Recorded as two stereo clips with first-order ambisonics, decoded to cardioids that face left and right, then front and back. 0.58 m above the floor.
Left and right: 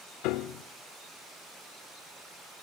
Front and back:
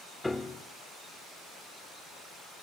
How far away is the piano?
About 0.9 m.